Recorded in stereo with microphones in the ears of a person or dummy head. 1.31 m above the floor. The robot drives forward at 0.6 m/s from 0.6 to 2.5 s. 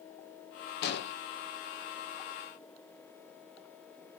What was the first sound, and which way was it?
An explosion, 55° left (ahead or behind).